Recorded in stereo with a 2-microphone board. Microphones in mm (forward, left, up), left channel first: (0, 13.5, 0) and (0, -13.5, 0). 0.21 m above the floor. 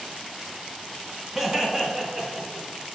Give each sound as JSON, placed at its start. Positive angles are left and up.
{"t": 1.4, "sound": "laughter", "side_deg": -5, "distance_m": 1.9}